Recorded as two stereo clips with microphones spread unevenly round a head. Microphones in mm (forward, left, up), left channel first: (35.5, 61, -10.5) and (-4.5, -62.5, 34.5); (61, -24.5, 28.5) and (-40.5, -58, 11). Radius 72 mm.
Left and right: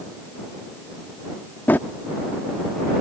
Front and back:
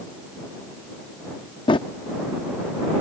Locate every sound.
1.7 s a drawer: 15° right